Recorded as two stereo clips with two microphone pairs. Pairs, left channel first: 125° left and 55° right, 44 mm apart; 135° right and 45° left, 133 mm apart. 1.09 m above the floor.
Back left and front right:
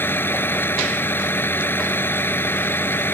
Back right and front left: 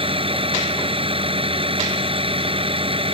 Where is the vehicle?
90° left.